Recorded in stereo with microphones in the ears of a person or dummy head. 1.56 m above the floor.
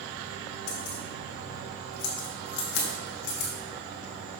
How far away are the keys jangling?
About 1.9 m.